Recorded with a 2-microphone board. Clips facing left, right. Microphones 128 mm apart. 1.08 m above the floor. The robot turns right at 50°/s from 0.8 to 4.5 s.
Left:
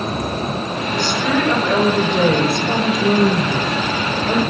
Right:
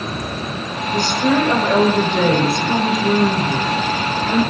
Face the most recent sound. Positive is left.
turn(degrees=125)